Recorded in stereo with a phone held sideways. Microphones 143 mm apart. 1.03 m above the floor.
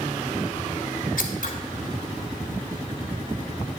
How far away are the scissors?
About 1.9 m.